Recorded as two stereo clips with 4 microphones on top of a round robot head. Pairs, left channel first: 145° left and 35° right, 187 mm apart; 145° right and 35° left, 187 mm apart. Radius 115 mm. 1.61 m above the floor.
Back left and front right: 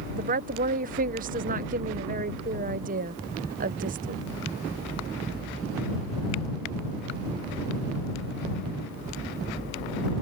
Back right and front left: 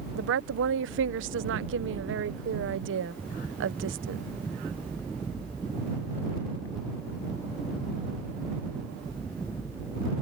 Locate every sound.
0.1 s a woman speaking: 10° left